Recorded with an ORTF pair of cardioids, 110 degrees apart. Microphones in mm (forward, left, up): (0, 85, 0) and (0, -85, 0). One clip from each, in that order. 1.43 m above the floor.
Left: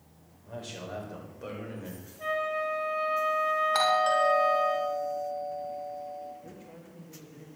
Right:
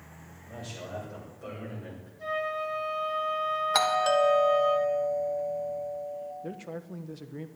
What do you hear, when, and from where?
0.5 s a man speaking: 30° left, 7 m; by 2.1 s 25° left, 7 m
2.2 s a flute: 25° left, 6 m
3.7 s a doorbell: 35° right, 2.5 m
6.4 s a man speaking: 65° right, 1.3 m